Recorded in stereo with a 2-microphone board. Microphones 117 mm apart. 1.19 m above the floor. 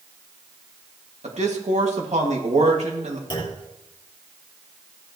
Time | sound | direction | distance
1.2 | a man speaking | 75° right (ahead or behind) | 2 m
3.3 | a clunk | 40° left (ahead or behind) | 3.5 m